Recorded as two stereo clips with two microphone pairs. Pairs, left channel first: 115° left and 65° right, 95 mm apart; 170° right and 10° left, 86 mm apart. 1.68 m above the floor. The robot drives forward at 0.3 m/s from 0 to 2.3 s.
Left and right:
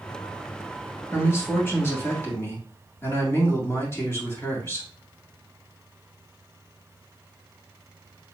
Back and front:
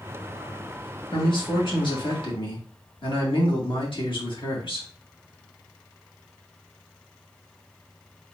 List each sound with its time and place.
1.1 s a man speaking: straight behind, 1.6 m